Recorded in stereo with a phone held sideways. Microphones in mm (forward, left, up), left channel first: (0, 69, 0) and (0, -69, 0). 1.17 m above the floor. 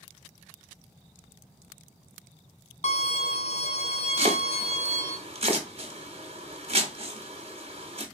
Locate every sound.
2.8 s a violin: 50° left (ahead or behind), 0.6 m
4.2 s chopping: 45° right (ahead or behind), 0.9 m